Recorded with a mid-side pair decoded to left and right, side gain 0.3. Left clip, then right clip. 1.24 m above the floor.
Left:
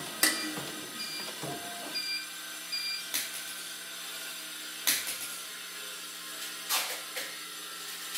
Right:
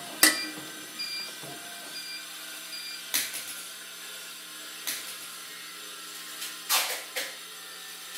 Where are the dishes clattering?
65° right, 0.7 m.